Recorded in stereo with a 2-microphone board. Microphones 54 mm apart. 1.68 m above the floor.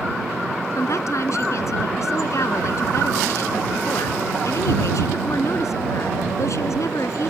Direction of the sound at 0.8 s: 65° left (ahead or behind).